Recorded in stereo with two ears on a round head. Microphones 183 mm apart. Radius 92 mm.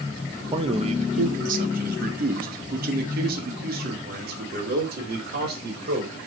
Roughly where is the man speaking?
Right.